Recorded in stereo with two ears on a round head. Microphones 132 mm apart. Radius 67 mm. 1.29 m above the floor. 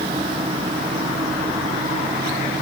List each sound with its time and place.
Only background noise.